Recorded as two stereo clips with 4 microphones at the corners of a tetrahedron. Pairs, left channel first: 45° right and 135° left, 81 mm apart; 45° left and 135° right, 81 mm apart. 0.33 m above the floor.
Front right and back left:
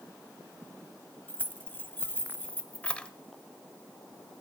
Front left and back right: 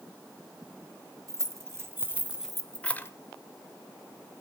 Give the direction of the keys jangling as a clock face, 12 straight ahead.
4 o'clock.